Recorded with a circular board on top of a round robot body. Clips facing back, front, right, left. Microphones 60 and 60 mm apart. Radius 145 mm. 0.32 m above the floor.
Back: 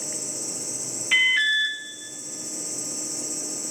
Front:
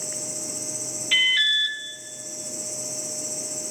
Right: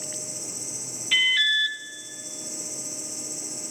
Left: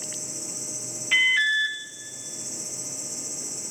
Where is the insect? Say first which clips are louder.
Even, right 1 dB; 150° left, 7 m.